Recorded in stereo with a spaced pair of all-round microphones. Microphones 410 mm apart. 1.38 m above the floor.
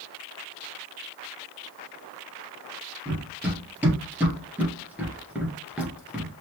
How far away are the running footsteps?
About 2 m.